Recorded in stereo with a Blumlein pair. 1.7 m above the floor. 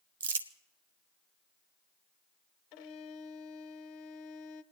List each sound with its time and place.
0.2 s crumpling: 65° right, 0.8 m
2.7 s a violin: 40° left, 0.5 m